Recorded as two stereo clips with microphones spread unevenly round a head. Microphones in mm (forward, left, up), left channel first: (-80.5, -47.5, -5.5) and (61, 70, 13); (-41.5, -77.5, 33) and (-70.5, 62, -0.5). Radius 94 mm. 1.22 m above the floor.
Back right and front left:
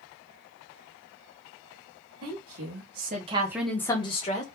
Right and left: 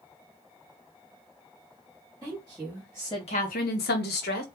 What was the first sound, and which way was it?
A woman speaking, 30° left.